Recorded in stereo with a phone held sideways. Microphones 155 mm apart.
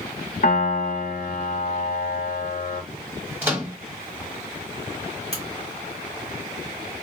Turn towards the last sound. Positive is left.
turn(degrees=-40)  # may be behind; listen again after turning